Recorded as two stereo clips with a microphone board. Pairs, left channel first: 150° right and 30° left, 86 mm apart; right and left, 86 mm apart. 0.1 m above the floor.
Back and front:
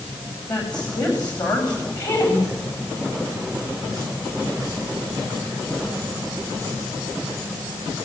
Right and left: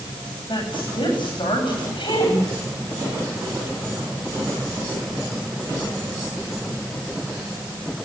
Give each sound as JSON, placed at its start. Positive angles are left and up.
{"t": 0.5, "sound": "a woman speaking", "azimuth_deg": -110, "distance_m": 9.5}